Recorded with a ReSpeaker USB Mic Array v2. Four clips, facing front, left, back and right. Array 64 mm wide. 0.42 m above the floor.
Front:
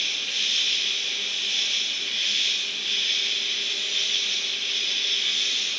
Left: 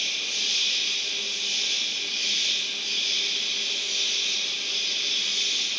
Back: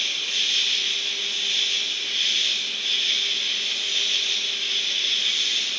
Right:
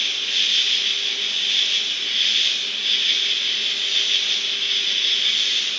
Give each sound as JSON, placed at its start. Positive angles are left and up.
{"t": 0.0, "sound": "an insect", "azimuth_deg": -95, "distance_m": 1.3}